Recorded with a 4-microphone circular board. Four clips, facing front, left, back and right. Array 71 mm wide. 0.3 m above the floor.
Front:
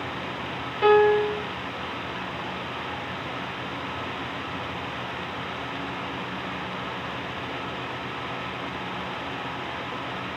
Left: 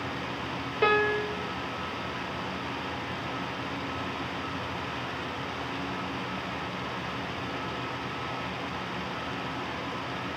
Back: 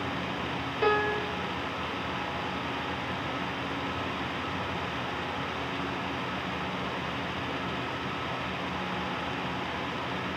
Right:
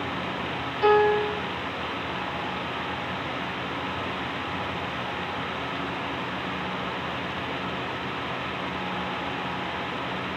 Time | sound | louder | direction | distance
0.8 | a piano | right 5 dB, front 9 dB | 70° left | 1.8 m